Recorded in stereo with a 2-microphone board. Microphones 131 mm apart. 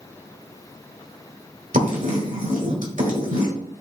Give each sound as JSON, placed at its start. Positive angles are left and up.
{"t": 1.7, "sound": "writing", "side_deg": -80, "distance_m": 1.3}